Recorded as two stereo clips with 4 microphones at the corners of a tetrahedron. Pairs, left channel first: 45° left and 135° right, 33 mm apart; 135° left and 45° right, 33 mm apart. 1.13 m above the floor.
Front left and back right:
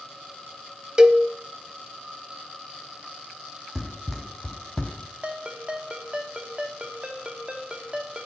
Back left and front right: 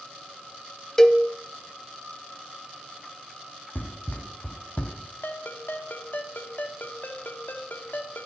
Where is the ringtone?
165° left, 2.0 m.